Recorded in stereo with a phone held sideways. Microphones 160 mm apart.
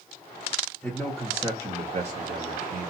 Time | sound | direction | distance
0.8 | a man speaking | 5° left (ahead or behind) | 0.7 m